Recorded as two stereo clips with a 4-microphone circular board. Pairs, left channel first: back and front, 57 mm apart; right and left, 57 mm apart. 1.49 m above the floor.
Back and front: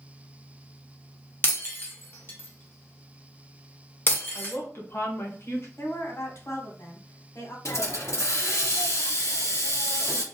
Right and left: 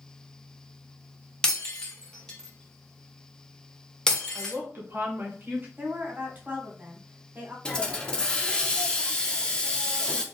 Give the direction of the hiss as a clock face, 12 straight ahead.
5 o'clock.